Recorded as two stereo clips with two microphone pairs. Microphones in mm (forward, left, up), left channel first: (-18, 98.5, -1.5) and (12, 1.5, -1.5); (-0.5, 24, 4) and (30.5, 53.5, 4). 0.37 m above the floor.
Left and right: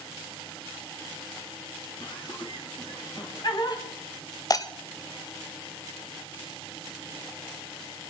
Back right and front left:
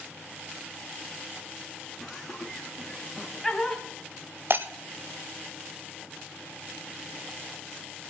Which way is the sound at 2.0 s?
135° left.